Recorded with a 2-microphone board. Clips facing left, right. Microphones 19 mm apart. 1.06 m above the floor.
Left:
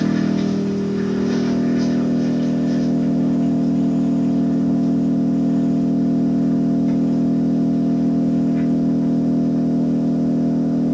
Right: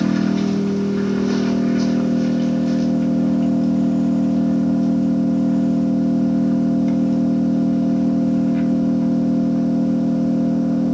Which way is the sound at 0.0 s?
30° right (ahead or behind).